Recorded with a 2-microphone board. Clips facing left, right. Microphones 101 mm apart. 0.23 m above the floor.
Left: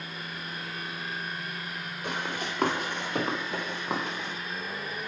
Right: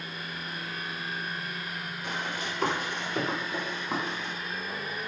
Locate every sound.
2.0 s running footsteps: 65° left (ahead or behind), 3.5 m; by 4.3 s 85° left, 3 m